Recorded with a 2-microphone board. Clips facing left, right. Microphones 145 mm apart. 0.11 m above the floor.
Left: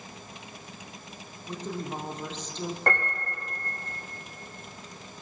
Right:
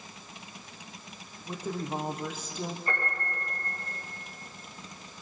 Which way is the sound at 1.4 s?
10° right (ahead or behind).